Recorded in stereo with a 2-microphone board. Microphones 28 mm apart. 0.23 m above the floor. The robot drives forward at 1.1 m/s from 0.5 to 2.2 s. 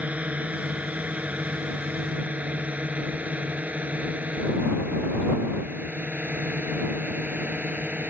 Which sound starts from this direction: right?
A drone, at 0.0 s.